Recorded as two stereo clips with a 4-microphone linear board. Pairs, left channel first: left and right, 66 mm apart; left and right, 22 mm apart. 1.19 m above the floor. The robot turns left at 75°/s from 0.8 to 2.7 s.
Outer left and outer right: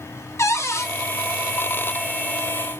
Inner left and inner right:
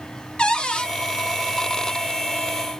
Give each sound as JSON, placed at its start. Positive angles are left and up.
{"t": 0.4, "sound": "a cupboard door", "side_deg": 45, "distance_m": 0.7}